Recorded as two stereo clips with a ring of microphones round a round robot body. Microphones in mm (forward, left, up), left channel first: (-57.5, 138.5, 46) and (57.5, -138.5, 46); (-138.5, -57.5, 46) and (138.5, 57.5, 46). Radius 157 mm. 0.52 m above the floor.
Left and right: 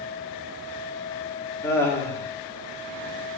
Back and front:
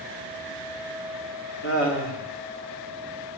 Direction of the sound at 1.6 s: 170° right.